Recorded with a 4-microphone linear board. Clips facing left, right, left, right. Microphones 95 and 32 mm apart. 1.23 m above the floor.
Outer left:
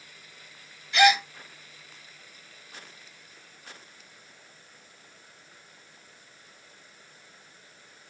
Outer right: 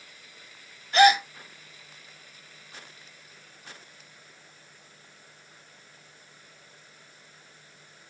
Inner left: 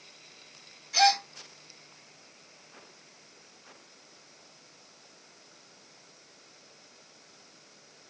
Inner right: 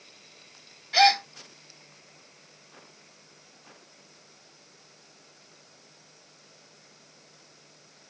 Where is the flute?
No flute in this recording.